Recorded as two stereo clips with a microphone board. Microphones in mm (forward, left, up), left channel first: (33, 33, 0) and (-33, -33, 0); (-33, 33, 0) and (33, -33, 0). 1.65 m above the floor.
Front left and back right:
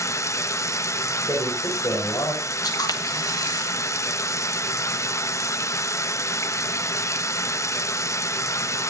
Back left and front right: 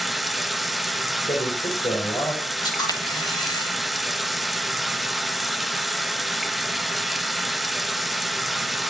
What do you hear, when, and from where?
0.0 s running water: 45° left, 1.0 m
1.3 s a man speaking: 105° left, 6.5 m
2.6 s a camera shutter: 90° left, 2.5 m